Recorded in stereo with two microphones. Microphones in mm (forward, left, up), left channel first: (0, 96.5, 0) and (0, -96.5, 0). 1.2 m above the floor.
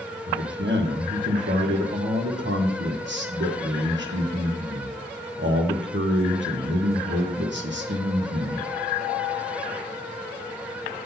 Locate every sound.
0.3 s a man speaking: 70° right (ahead or behind), 1.4 m